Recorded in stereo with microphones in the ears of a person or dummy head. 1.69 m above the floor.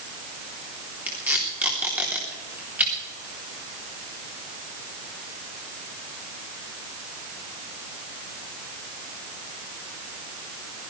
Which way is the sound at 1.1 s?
15° right (ahead or behind).